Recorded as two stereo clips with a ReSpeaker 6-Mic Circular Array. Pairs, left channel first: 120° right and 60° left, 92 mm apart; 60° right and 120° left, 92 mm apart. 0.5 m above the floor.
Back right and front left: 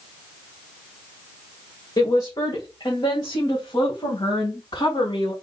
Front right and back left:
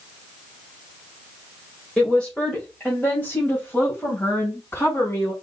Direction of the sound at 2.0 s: 140° right.